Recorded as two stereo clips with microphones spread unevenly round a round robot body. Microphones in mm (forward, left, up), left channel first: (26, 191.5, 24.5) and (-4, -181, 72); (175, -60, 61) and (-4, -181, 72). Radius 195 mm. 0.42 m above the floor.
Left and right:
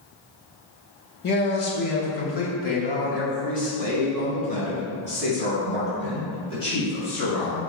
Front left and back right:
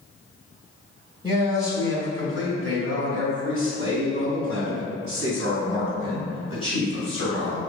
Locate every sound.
1.2 s a man speaking: 140° left, 1.6 m; by 7.6 s 160° left, 4.5 m